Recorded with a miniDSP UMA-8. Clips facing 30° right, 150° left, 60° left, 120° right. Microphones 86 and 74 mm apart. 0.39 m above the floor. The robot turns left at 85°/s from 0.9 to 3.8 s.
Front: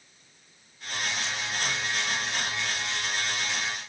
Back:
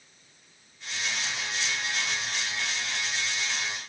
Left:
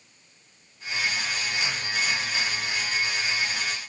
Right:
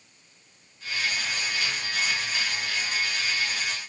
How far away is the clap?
I don't hear a clap.